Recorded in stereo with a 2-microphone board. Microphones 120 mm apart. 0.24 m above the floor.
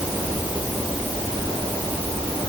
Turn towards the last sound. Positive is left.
No sound to turn to.